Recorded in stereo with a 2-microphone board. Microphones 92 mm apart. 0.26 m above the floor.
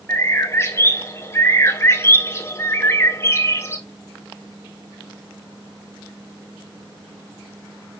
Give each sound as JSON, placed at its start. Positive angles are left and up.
{"t": 0.1, "sound": "a bird", "side_deg": 30, "distance_m": 0.5}